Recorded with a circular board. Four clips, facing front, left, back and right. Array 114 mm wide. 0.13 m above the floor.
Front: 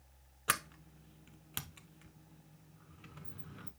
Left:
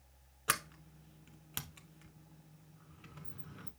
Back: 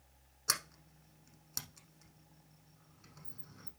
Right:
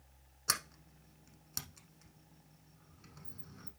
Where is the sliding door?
40° left, 0.7 m.